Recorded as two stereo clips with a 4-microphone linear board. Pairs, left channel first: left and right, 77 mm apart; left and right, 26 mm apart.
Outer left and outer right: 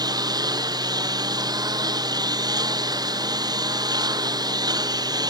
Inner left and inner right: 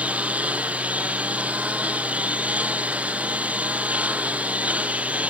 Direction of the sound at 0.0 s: 60° right (ahead or behind).